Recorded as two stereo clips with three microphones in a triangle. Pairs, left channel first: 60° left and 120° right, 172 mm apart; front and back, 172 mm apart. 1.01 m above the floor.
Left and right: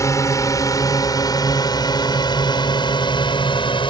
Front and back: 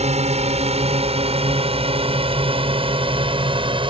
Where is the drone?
130° left; by 3.9 s 120° left.